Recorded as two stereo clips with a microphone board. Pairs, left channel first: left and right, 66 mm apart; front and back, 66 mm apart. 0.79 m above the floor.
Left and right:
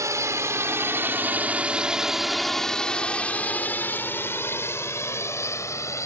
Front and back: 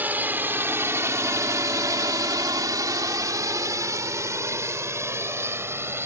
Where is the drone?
120° right; by 6.1 s 125° left.